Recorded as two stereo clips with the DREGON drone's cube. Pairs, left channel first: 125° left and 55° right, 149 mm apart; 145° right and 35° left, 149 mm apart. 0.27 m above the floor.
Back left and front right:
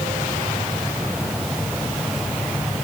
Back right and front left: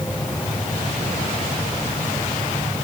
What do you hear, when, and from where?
Only background noise.